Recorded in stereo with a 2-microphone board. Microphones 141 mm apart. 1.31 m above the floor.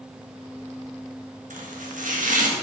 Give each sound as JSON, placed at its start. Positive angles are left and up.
{"t": 1.5, "sound": "chopping", "side_deg": -80, "distance_m": 1.5}